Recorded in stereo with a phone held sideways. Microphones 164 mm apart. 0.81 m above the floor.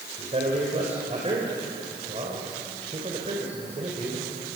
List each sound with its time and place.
0.2 s a man speaking: 40° right (ahead or behind), 4 m